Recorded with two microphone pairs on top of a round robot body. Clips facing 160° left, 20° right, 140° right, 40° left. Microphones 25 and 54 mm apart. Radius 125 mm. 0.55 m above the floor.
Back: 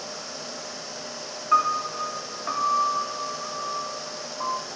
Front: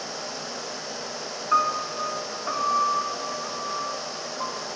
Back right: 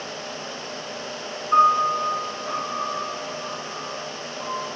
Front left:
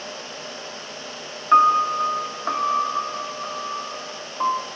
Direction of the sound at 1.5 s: 65° left.